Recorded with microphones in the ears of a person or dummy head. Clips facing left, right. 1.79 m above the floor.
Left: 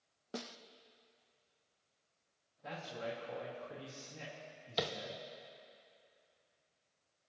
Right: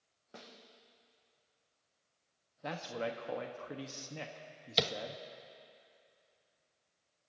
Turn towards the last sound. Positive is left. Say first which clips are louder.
# right 3 dB
turn(degrees=-35)  # may be behind; listen again after turning